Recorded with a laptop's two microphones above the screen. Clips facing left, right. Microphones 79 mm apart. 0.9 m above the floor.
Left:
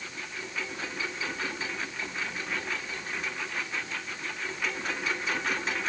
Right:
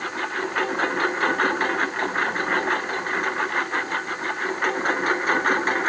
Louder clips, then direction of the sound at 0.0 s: Right 13 dB; 60° right (ahead or behind).